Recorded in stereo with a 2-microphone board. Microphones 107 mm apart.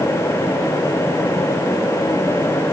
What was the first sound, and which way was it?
Only background noise.